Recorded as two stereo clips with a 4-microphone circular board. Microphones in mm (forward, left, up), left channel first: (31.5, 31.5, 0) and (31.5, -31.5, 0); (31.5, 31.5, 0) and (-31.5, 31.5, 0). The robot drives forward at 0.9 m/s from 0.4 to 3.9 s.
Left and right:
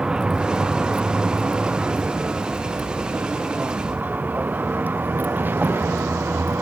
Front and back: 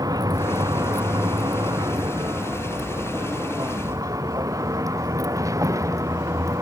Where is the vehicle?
170° right; by 6.6 s 145° right.